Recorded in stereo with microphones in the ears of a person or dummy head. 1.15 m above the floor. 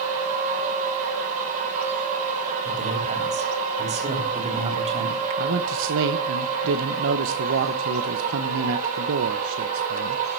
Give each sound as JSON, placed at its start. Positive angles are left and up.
{"t": 0.0, "sound": "a machine running", "side_deg": -40, "distance_m": 5.0}
{"t": 2.6, "sound": "a man speaking", "side_deg": -35, "distance_m": 3.5}
{"t": 5.4, "sound": "a man speaking", "side_deg": -65, "distance_m": 1.1}